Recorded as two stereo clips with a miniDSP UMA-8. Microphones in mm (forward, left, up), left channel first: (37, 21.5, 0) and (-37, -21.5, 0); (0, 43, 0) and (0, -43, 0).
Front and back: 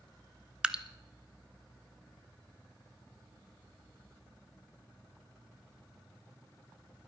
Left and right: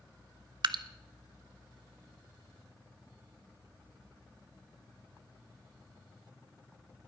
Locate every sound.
0.6 s dripping: 75° right, 0.5 m